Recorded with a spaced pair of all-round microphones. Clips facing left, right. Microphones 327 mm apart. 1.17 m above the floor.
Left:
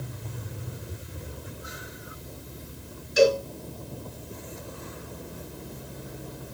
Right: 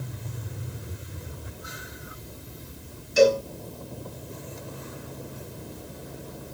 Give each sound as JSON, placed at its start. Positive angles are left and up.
{"t": 3.2, "sound": "a cowbell", "side_deg": -60, "distance_m": 3.5}